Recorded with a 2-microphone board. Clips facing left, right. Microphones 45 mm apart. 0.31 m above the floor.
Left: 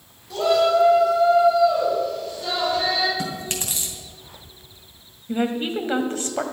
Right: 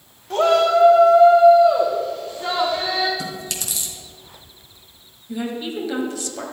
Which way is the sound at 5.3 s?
45° left (ahead or behind).